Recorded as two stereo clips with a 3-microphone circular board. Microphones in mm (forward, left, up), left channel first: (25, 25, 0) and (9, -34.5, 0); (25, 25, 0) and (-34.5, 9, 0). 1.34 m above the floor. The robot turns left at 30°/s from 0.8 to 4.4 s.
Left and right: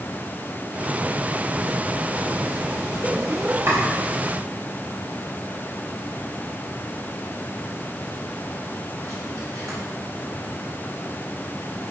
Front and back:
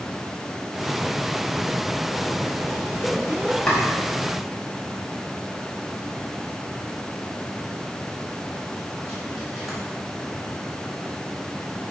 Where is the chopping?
60° right, 5.5 m; by 9.8 s 80° right, 5.5 m.